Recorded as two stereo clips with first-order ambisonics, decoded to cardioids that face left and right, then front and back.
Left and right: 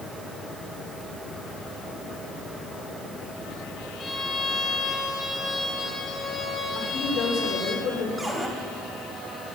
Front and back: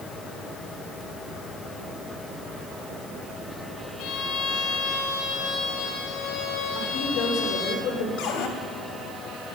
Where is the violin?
20° left, 3 m.